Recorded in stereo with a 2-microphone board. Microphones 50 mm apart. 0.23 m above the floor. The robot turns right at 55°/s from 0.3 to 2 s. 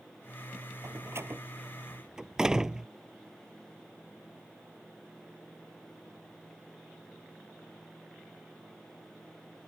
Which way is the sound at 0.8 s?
70° right (ahead or behind).